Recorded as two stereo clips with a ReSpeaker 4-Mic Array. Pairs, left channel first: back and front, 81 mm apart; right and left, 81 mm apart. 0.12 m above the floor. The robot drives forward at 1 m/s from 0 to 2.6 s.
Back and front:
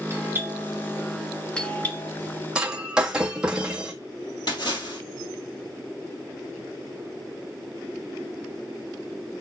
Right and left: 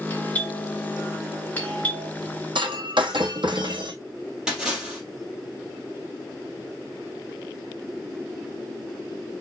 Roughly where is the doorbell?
Ahead right.